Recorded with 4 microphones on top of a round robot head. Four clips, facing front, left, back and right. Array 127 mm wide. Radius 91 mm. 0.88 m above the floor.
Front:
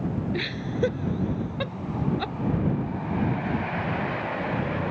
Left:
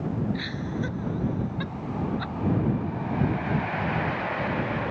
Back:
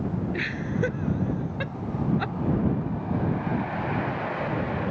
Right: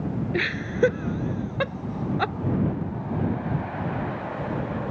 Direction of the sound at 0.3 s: 75° right.